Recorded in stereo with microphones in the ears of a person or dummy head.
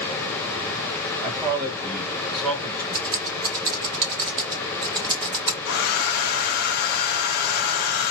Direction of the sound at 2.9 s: 30° right (ahead or behind).